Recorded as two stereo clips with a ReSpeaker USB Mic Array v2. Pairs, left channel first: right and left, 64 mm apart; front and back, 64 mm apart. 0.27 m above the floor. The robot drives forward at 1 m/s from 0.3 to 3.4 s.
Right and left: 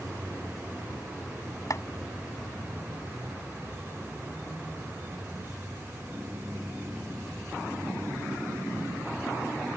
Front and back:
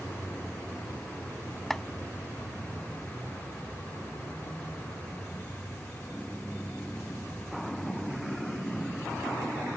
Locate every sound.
1.7 s chopping: 85° right; by 1.8 s 90° right